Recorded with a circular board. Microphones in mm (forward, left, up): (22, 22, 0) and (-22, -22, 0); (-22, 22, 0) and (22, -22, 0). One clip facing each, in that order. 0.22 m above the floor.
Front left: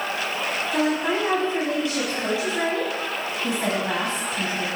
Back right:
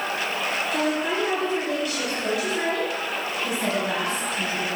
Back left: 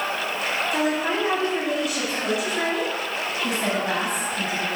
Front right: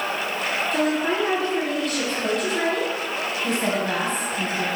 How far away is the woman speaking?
About 1.6 m.